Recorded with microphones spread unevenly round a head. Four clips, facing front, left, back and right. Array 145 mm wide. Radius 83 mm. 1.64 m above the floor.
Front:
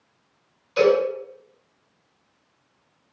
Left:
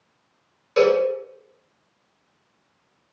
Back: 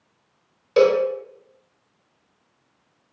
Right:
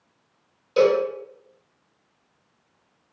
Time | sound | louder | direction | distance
0.8 | a cowbell | left 1 dB, back 2 dB | 170° right | 0.9 m